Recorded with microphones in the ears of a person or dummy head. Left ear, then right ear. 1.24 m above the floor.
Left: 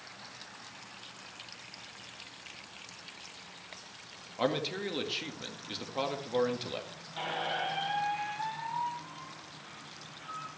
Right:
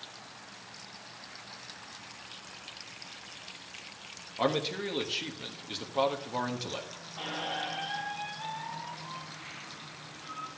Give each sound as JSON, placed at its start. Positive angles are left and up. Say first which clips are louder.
{"t": 4.4, "sound": "a man speaking", "louder": "right 2 dB", "side_deg": 10, "distance_m": 1.9}
{"t": 7.2, "sound": "a squeak", "louder": "left 1 dB", "side_deg": 75, "distance_m": 3.0}